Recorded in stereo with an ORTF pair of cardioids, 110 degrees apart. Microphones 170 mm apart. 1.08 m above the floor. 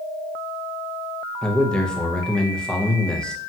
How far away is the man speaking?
About 0.6 m.